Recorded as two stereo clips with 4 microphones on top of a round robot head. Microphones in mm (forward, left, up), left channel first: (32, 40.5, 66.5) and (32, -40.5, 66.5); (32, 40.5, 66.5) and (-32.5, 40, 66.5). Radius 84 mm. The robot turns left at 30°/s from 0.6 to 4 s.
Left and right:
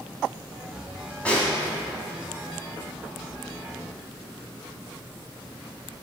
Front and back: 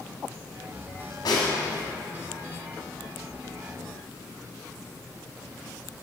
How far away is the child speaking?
No child speaking in this recording.